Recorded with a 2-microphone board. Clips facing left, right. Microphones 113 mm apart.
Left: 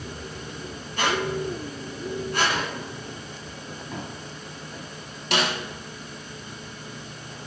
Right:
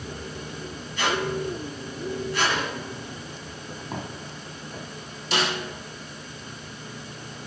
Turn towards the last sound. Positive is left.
turn(degrees=80)